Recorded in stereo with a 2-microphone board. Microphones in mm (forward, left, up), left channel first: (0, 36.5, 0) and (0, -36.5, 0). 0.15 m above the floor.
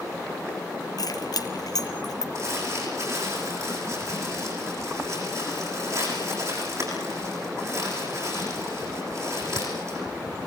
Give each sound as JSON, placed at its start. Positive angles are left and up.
{"t": 1.0, "sound": "keys jangling", "side_deg": 60, "distance_m": 2.5}
{"t": 2.4, "sound": "crumpling", "side_deg": -45, "distance_m": 9.5}